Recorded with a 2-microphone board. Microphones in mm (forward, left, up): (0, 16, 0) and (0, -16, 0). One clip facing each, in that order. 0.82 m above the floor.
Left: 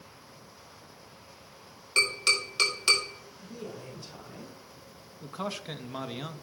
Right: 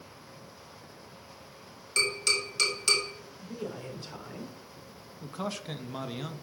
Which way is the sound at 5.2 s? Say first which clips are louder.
Even; 10° left (ahead or behind).